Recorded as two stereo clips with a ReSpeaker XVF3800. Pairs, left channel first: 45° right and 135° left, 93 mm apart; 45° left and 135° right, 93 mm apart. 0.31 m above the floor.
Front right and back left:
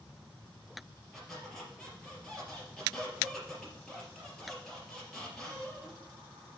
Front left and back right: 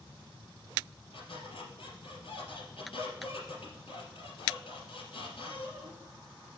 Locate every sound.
1.1 s a squeak: 40° left, 3 m